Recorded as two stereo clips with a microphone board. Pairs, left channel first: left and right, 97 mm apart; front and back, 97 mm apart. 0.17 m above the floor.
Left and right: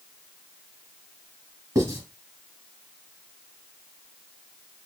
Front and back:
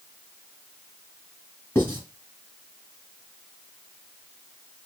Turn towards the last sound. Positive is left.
turn(degrees=-60)